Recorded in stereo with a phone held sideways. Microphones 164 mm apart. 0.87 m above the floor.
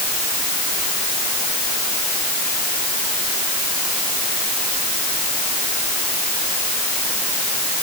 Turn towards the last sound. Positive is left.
No sound to turn to.